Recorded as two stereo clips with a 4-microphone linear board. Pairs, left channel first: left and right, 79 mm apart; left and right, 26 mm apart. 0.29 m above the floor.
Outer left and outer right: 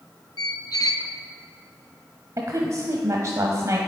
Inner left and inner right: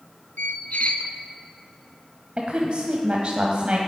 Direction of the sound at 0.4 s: 60° left (ahead or behind).